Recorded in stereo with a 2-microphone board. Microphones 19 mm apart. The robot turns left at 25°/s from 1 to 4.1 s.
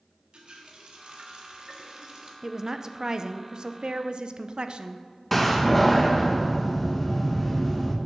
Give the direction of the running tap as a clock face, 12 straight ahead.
4 o'clock.